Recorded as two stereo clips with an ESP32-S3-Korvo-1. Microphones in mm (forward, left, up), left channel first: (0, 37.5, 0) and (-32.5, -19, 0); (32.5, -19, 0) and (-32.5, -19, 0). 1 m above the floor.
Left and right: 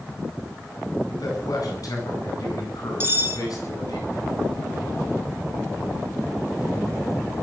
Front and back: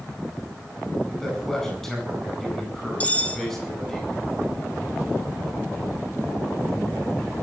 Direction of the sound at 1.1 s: 85° left.